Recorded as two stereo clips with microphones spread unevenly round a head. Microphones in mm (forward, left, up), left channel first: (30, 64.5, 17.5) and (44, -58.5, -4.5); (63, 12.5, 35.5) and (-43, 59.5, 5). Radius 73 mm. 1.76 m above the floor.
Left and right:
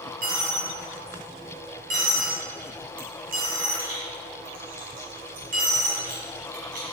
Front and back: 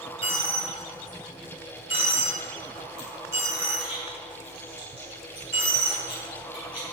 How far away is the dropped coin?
About 5.5 m.